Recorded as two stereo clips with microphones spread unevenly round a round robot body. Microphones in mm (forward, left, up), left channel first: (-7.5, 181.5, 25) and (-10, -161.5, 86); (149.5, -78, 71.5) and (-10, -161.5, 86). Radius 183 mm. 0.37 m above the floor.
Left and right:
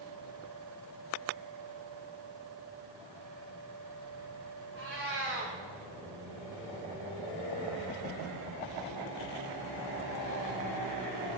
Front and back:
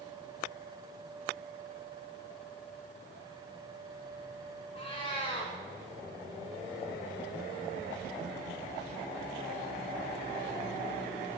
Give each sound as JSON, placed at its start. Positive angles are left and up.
{"t": 4.8, "sound": "a cat meowing", "azimuth_deg": -35, "distance_m": 6.0}